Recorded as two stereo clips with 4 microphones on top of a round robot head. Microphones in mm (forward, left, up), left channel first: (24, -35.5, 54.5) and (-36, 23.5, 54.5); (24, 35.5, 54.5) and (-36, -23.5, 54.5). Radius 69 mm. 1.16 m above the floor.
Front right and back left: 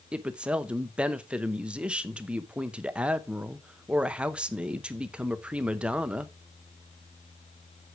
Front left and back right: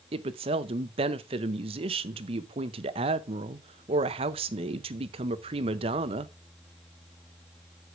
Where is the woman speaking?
145° right, 0.7 m.